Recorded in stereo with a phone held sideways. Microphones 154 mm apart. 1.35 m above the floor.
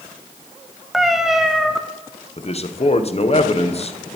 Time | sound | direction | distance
0.9 | a cat meowing | centre (ahead or behind) | 0.6 m
2.4 | a man speaking | 45° left (ahead or behind) | 0.7 m